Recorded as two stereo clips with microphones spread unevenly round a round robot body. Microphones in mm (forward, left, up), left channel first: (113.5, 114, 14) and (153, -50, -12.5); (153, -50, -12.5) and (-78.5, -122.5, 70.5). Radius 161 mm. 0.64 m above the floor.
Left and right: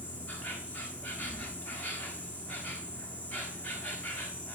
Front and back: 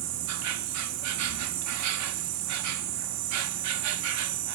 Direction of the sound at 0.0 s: 170° right.